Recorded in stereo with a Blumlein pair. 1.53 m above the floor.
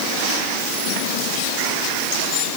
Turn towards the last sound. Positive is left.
No sound to turn to.